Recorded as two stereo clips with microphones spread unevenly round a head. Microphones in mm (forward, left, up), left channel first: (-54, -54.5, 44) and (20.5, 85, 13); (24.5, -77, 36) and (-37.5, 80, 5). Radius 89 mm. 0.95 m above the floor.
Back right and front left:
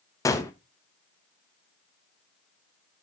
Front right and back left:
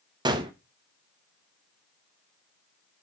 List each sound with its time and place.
0.2 s a gunshot: 165° left, 1.2 m